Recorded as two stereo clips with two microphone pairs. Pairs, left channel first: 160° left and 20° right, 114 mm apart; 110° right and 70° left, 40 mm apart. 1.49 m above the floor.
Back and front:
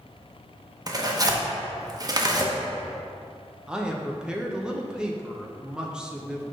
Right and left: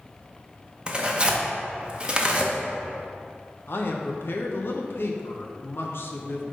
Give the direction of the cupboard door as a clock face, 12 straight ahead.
I don't hear a cupboard door.